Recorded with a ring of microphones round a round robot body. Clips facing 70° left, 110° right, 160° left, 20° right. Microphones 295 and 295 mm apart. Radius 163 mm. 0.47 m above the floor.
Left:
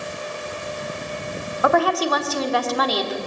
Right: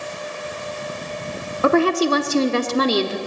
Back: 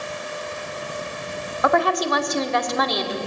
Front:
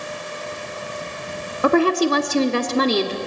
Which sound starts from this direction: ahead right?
A woman speaking, at 1.6 s.